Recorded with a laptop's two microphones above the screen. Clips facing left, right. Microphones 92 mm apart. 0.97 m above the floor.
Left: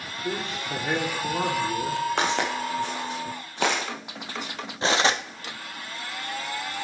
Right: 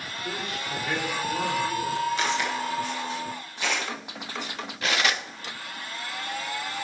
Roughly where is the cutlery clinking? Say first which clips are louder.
Left 4 dB; left.